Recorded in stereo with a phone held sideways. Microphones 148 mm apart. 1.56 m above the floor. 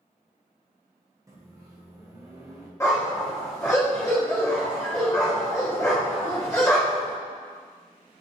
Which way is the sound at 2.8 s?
20° left (ahead or behind).